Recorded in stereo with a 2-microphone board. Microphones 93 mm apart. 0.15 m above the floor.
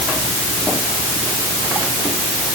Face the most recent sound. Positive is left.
No sound to turn to.